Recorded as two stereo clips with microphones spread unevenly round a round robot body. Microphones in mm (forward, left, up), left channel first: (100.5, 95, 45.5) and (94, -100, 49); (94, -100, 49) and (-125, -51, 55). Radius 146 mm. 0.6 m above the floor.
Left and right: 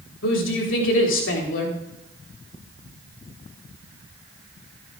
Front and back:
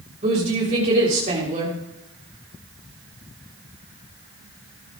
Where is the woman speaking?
105° left, 3.5 m.